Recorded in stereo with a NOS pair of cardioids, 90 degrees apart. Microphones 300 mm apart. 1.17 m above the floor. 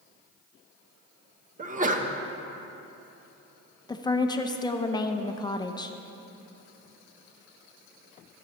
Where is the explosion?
No explosion in this recording.